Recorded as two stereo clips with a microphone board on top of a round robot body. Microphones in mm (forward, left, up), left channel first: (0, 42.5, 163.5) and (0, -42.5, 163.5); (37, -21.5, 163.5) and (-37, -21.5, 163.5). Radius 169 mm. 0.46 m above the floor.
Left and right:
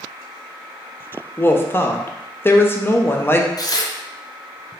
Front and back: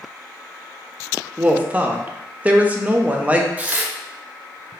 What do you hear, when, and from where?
1.4 s a woman speaking: 125° left, 0.7 m
3.6 s tearing paper: 115° left, 0.7 m